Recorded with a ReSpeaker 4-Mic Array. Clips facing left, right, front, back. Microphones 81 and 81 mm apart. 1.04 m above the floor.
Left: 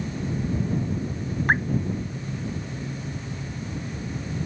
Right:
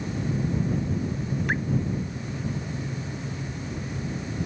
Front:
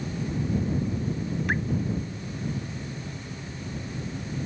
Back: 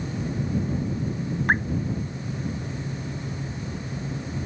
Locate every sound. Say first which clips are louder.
1.5 s dripping: left 7 dB, back 6 dB; 135° left